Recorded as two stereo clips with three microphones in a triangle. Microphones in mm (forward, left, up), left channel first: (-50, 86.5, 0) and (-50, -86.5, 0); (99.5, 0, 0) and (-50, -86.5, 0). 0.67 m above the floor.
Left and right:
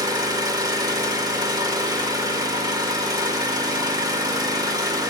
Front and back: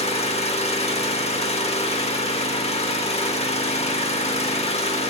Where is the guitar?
No guitar in this recording.